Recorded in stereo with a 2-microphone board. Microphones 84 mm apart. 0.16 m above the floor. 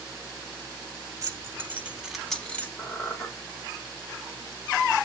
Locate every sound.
1.2 s keys jangling: 40° right (ahead or behind), 1.0 m; by 2.7 s 20° left (ahead or behind), 0.8 m
2.8 s a squeak: 25° left (ahead or behind), 4.5 m